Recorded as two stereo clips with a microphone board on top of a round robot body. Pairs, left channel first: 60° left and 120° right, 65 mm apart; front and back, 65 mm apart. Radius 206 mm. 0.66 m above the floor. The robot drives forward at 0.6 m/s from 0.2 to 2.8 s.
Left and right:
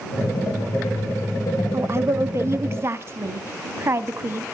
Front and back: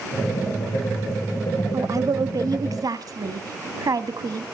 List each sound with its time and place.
1.7 s a woman speaking: 160° right, 0.9 m; by 4.4 s 170° right, 1.5 m